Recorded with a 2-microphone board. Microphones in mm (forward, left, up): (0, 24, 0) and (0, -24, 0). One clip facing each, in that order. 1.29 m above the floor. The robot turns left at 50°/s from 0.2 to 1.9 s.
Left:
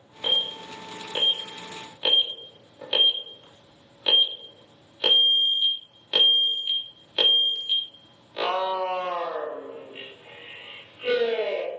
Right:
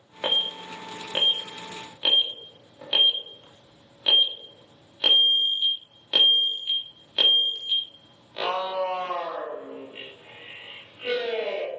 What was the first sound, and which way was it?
An alarm, 80° right.